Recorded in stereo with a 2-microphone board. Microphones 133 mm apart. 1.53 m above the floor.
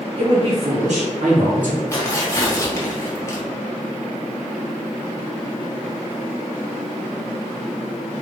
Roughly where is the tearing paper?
Left.